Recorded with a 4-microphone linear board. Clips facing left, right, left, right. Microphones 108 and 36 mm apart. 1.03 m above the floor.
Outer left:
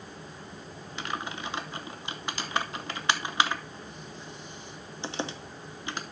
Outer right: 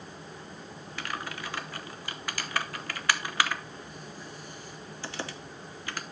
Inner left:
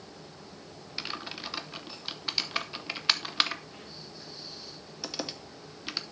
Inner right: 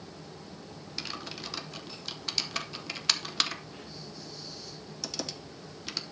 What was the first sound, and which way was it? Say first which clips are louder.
Typing on a keyboard: outer left 2 dB, inner left 2 dB; 20° left (ahead or behind).